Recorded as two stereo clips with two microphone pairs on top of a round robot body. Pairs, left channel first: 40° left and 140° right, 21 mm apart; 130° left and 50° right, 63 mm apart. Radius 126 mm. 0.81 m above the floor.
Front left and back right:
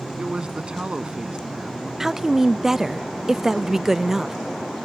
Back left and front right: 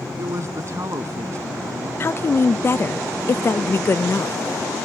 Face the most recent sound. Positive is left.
turn(degrees=170)